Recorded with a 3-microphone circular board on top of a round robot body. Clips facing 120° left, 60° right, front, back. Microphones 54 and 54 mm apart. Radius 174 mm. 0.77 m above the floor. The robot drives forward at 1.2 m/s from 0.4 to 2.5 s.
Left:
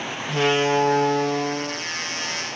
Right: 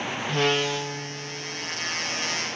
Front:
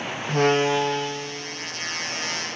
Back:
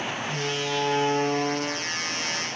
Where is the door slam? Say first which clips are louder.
Left 5 dB, front 12 dB; 40° left; by 1.9 s 160° left.